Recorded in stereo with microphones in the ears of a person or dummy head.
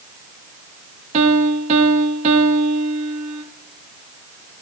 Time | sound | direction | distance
1.1 | a piano | 35° right (ahead or behind) | 1.0 m